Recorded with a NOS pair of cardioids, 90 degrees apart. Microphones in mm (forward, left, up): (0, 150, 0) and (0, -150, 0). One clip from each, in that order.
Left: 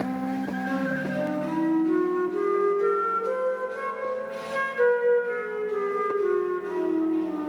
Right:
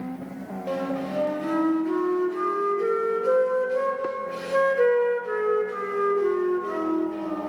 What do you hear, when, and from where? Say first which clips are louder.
0.7 s a flute: right 3 dB; 25° right, 1.4 m